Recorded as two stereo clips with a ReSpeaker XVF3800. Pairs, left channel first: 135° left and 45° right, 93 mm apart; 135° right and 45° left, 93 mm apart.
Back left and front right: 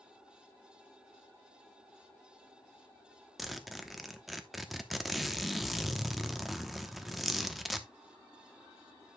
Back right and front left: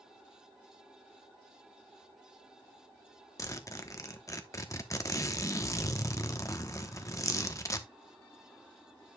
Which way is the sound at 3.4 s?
135° right.